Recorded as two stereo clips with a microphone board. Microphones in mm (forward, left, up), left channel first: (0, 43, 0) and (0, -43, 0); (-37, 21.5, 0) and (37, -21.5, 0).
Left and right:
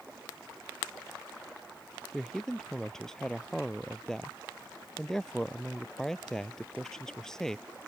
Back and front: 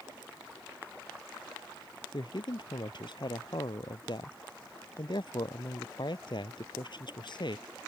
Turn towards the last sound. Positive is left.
turn(degrees=170)